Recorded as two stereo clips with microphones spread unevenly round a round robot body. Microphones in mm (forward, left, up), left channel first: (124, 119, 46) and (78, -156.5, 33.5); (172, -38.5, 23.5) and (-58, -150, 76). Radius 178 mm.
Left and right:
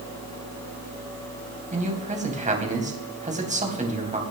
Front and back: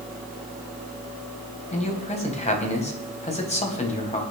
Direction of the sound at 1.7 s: 35° right.